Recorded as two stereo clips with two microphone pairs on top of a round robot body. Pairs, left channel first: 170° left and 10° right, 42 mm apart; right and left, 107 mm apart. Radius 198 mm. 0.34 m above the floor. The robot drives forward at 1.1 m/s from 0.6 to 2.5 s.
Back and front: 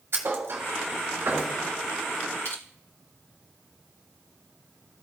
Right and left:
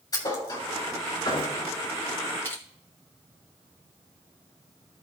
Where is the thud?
35° right, 3 m; by 1.6 s 50° right, 2.5 m.